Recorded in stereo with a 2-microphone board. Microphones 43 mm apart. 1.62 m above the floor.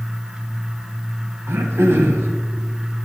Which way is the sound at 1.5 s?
75° right (ahead or behind).